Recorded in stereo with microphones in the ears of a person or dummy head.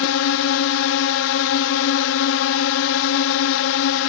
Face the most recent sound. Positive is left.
turn(degrees=70)  # may be behind; listen again after turning